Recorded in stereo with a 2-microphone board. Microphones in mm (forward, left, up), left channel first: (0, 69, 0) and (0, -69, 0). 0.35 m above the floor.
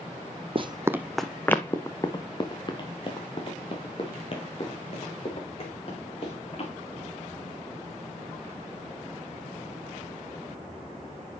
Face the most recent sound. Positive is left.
turn(degrees=45)  # may be behind; listen again after turning